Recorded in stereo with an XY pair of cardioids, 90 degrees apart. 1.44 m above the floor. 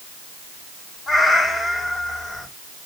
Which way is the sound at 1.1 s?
40° left.